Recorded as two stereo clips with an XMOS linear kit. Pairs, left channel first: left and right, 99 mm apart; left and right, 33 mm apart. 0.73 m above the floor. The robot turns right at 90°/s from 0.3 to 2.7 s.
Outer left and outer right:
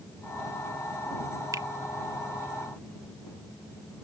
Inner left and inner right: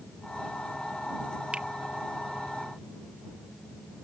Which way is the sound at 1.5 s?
35° right (ahead or behind).